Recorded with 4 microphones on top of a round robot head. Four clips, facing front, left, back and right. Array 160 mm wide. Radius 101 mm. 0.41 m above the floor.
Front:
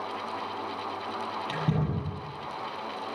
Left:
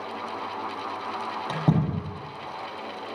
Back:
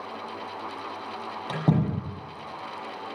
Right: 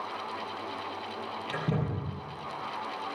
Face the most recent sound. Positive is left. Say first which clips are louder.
# left 7 dB, back 7 dB
turn(degrees=135)